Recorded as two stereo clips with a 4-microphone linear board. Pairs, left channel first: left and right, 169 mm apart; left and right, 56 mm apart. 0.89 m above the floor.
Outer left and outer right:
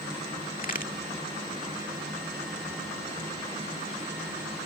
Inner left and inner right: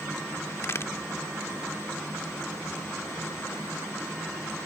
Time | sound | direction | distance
0.6 | a crack | 50° left (ahead or behind) | ?